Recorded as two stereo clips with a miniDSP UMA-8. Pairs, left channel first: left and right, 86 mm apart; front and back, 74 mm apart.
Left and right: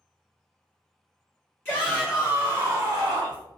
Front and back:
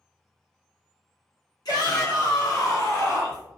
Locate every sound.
1.6 s a shout: 20° left, 0.9 m; by 3.5 s 65° right, 1.2 m